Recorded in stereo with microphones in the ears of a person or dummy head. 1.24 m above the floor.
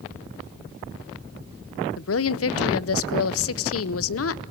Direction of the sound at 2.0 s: 70° left (ahead or behind).